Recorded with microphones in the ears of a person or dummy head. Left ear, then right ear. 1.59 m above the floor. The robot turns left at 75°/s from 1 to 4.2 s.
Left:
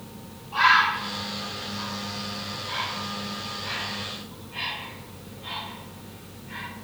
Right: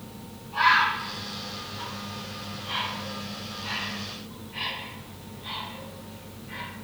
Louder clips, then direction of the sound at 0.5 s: Left 2 dB; 50° left (ahead or behind).